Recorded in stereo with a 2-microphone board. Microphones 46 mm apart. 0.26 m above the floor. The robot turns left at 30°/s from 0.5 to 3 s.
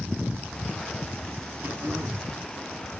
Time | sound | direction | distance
1.6 | throat clearing | 65° right (ahead or behind) | 5.5 m